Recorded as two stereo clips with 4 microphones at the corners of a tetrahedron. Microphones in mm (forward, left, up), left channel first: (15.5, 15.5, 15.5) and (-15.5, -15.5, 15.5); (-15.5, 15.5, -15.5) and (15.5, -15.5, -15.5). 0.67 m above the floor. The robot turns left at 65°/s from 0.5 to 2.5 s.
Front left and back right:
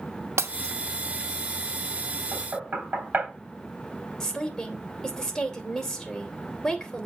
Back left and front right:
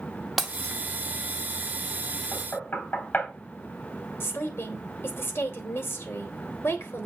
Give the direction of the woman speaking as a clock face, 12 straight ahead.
8 o'clock.